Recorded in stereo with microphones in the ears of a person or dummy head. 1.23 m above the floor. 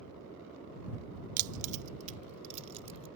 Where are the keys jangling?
45° right (ahead or behind); by 3.1 s 35° right (ahead or behind).